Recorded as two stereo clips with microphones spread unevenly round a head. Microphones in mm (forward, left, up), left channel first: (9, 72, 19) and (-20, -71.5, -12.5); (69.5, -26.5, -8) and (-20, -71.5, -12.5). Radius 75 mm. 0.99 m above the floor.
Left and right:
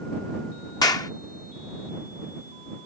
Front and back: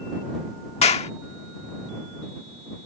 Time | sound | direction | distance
0.8 | a clap | 10° left | ?